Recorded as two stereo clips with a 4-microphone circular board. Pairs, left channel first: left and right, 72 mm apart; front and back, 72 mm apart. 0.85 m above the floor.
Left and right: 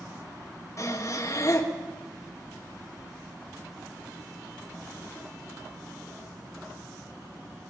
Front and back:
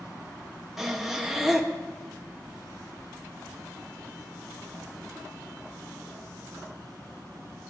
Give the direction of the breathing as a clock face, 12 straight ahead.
9 o'clock.